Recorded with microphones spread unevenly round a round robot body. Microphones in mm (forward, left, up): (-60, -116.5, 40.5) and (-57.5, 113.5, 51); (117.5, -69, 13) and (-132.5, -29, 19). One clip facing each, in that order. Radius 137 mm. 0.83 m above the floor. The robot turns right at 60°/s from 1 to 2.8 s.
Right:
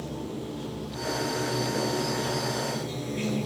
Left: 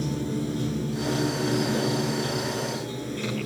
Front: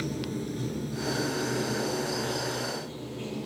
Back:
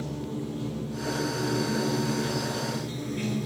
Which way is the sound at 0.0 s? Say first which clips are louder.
Left 6 dB, front 1 dB; 55° left.